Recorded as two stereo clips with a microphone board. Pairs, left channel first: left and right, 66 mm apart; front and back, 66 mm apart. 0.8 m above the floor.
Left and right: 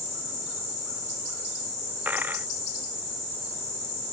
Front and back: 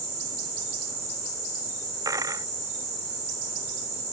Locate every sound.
2.0 s a dropped coin: 150° right